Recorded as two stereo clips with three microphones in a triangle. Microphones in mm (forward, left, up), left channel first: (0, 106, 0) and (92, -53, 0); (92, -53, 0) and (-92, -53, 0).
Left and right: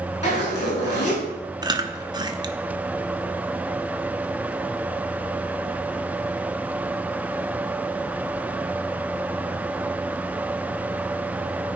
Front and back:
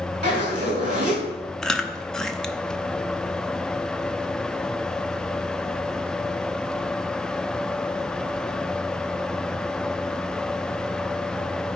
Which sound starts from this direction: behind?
A zipper, at 0.2 s.